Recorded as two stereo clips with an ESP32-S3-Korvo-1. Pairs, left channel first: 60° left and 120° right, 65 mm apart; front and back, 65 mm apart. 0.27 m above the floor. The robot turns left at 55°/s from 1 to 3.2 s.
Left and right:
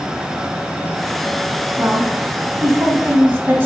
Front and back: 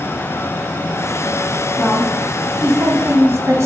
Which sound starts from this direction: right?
A woman speaking, at 1.8 s.